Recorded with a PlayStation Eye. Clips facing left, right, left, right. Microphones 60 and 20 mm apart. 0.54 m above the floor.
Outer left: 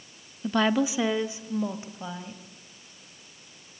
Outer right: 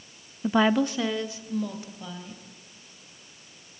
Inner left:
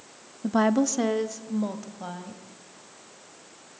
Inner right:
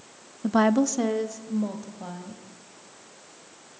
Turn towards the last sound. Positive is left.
turn(degrees=30)  # may be behind; listen again after turning